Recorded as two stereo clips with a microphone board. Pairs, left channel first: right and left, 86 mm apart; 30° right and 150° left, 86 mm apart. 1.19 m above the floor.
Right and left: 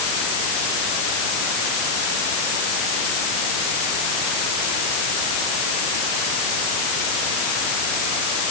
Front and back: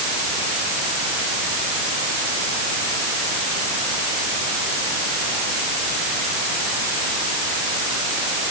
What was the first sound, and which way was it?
Only background noise.